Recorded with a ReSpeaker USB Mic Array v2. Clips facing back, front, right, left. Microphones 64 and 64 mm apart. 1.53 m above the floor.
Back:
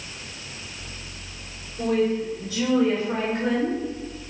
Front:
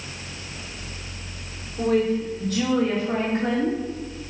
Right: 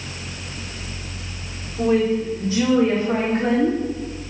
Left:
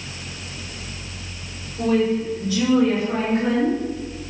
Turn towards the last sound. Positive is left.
turn(degrees=-55)